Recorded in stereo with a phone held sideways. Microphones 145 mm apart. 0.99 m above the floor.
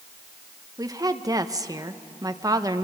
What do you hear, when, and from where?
0.8 s a woman speaking: 25° right (ahead or behind), 0.9 m